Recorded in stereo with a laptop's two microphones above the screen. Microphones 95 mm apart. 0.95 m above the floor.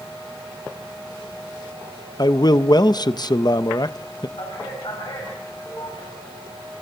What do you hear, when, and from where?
2.2 s a man speaking: 45° left (ahead or behind), 0.7 m
4.4 s a man speaking: 55° left (ahead or behind), 6.5 m